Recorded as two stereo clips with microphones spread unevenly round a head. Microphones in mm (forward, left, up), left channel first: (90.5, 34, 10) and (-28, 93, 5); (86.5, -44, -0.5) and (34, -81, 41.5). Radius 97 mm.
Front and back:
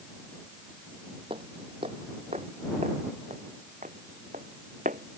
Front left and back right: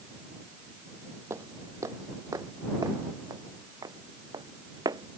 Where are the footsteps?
145° right; by 5.2 s 150° right.